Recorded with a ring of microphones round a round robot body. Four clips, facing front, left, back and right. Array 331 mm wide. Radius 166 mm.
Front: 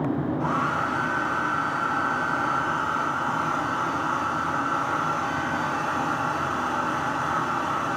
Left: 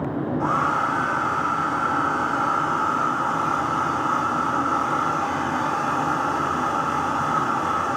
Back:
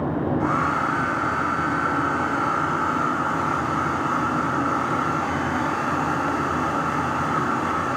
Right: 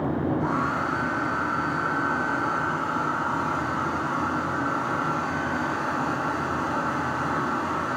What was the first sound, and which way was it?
A hair dryer, 105° left.